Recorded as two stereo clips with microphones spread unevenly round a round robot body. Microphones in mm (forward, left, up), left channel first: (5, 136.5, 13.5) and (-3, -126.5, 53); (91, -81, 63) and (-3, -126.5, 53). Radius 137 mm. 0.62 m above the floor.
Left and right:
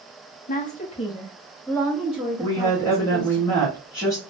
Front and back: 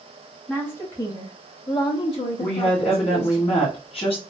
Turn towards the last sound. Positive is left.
turn(degrees=25)